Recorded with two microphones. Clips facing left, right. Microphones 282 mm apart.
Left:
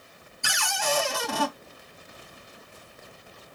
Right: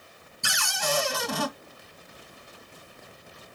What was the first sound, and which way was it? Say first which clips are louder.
A cupboard door: left 1 dB; 40° right (ahead or behind).